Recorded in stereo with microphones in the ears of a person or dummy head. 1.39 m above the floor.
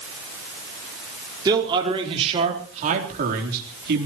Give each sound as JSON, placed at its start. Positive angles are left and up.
{"t": 1.4, "sound": "a man speaking", "side_deg": -25, "distance_m": 4.5}